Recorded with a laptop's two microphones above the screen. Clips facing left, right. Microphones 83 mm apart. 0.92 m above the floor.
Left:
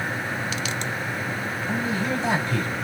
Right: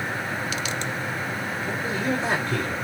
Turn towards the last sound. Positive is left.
turn(degrees=-50)  # may be behind; listen again after turning